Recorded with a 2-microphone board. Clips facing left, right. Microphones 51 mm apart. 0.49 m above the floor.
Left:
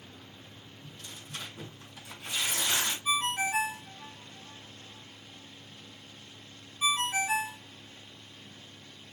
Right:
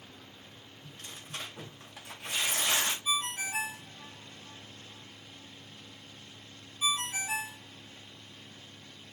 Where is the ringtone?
35° left (ahead or behind), 0.5 m.